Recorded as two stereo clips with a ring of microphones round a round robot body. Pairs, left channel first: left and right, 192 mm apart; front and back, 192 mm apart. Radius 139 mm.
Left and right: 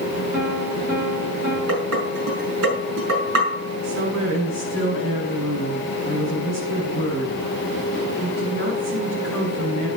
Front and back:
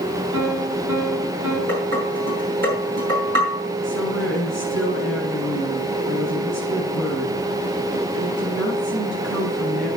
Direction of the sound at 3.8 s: 140° right.